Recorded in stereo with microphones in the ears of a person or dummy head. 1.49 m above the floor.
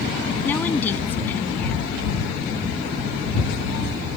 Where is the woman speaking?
15° left (ahead or behind).